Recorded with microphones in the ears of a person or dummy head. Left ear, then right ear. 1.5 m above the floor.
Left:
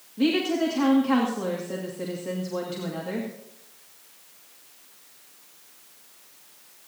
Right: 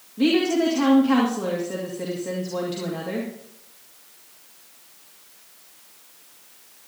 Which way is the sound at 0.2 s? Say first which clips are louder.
Right 4 dB; 5° left (ahead or behind).